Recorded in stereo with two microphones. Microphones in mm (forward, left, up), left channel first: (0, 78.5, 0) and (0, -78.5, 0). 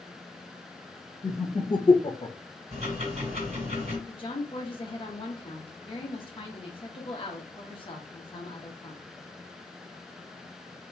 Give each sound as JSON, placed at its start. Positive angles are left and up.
{"t": 1.2, "sound": "laughter", "side_deg": 20, "distance_m": 1.0}
{"t": 2.7, "sound": "ticking", "side_deg": -50, "distance_m": 1.9}
{"t": 4.1, "sound": "a woman speaking", "side_deg": 35, "distance_m": 1.0}